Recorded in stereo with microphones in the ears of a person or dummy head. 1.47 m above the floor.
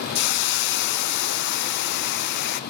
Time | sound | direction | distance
0.1 | a hiss | 55° left (ahead or behind) | 0.9 m